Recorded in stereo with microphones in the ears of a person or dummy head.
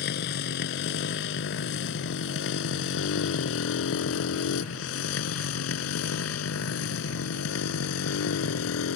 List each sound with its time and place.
0.0 s a motorcycle: 60° left (ahead or behind); by 9.0 s 75° left (ahead or behind)